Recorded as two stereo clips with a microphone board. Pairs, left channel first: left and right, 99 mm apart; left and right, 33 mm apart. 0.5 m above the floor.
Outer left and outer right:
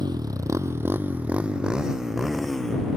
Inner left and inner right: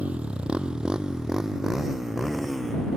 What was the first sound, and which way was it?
A motorcycle, 45° right (ahead or behind).